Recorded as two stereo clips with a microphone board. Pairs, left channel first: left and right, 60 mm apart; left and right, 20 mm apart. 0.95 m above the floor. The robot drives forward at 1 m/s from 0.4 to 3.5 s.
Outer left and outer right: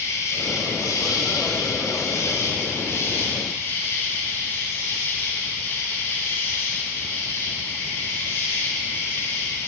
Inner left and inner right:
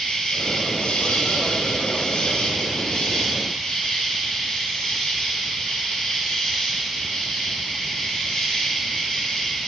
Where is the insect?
60° left (ahead or behind), 2 m; by 9.7 s 40° left (ahead or behind), 3 m.